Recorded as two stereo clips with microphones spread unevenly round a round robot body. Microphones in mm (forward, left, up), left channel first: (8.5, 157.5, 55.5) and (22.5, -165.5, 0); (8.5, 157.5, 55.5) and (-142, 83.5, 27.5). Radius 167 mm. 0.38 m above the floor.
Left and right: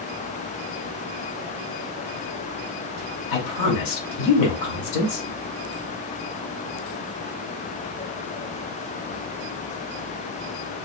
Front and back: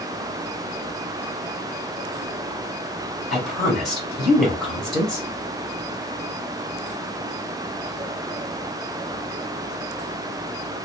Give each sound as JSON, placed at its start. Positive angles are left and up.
{"t": 3.3, "sound": "a woman speaking", "azimuth_deg": 120, "distance_m": 1.7}